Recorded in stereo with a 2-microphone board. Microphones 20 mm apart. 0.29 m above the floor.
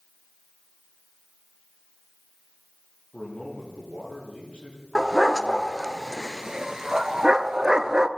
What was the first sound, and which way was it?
A man speaking, 80° left.